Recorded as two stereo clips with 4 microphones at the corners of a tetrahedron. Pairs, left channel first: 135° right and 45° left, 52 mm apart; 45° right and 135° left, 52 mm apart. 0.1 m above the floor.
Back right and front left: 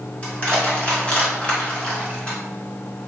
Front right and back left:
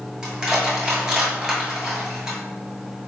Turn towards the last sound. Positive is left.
turn(degrees=-170)